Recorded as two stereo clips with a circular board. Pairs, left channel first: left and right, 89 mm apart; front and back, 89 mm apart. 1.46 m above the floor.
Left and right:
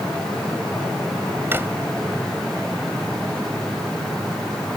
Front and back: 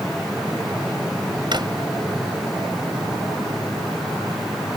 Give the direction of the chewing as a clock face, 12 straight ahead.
I don't hear chewing.